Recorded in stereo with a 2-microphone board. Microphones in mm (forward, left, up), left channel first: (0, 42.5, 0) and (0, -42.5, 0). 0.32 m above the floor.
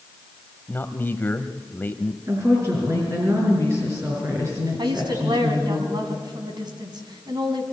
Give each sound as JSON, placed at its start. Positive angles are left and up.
{"t": 0.7, "sound": "a man speaking", "side_deg": 25, "distance_m": 1.3}
{"t": 2.3, "sound": "a woman speaking", "side_deg": -30, "distance_m": 5.0}
{"t": 4.8, "sound": "a woman speaking", "side_deg": -60, "distance_m": 3.0}